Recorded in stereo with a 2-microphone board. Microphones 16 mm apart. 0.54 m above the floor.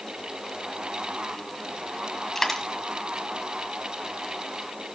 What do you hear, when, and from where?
2.4 s a dropped coin: 10° left (ahead or behind), 1.7 m